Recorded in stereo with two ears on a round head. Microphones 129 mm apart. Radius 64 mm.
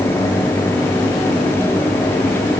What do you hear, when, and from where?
Only background noise.